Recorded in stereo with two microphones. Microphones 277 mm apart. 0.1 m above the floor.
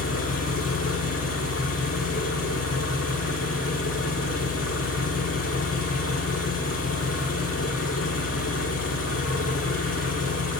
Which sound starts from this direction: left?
An engine running, at 0.0 s.